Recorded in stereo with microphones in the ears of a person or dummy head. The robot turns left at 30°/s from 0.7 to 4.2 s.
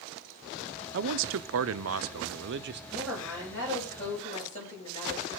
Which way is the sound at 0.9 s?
65° right.